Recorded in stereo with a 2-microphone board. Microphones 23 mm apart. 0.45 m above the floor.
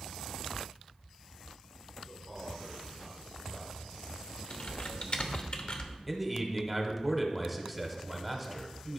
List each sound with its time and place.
2.1 s a man speaking: 5° right (ahead or behind), 3.5 m; by 4.4 s 20° left (ahead or behind), 6 m
4.5 s typing on a keyboard: 45° left (ahead or behind), 0.8 m
6.1 s a man speaking: 10° right (ahead or behind), 1.1 m